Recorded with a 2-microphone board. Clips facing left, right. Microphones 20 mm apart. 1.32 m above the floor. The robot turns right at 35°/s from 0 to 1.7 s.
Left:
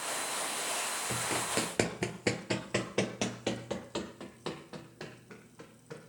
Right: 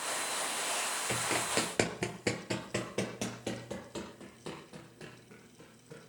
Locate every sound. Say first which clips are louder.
1.1 s running footsteps: right 1 dB; 25° right (ahead or behind), 1.4 m; by 6.1 s 35° left (ahead or behind), 4 m